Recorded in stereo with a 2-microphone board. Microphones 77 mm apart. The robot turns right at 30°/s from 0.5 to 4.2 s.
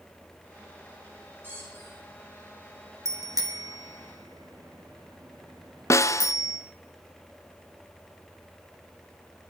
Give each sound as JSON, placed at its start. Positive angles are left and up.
{"t": 1.4, "sound": "a squeak", "side_deg": -25, "distance_m": 6.5}
{"t": 3.0, "sound": "a bicycle bell", "side_deg": -40, "distance_m": 2.0}
{"t": 5.9, "sound": "a snare drum", "side_deg": 40, "distance_m": 0.6}